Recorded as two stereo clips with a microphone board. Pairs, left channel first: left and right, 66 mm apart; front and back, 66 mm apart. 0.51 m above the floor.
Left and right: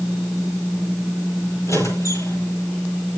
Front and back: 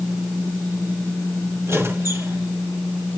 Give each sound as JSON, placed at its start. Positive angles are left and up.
{"t": 1.7, "sound": "a squeak", "azimuth_deg": 130, "distance_m": 7.5}